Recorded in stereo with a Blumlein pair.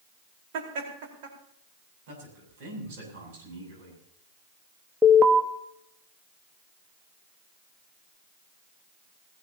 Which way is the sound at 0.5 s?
50° right.